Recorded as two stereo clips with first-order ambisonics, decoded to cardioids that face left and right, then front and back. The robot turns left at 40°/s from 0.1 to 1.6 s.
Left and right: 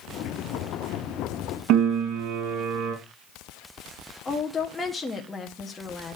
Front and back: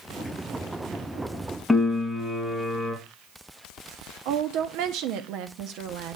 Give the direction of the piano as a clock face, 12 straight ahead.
3 o'clock.